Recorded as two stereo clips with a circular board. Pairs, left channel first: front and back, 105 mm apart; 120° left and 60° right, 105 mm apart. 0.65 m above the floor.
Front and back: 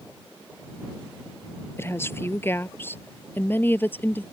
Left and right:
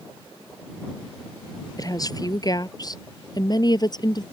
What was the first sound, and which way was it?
A woman speaking, 65° left.